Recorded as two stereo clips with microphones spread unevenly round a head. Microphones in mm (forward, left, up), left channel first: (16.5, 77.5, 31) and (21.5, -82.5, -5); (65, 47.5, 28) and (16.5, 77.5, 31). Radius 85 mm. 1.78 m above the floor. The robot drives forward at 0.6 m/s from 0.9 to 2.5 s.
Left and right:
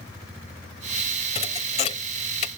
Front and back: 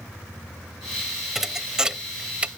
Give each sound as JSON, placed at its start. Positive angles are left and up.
{"t": 1.4, "sound": "a thud", "azimuth_deg": 70}